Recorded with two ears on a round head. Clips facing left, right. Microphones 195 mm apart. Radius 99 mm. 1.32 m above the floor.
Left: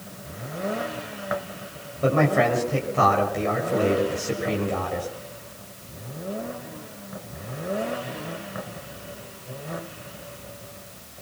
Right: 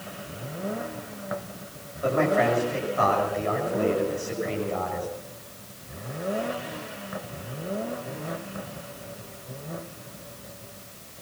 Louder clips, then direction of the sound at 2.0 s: Left 2 dB; 50° left (ahead or behind).